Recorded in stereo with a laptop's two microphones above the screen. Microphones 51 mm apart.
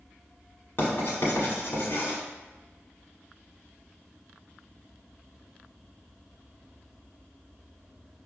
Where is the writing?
55° left (ahead or behind), 1.3 m.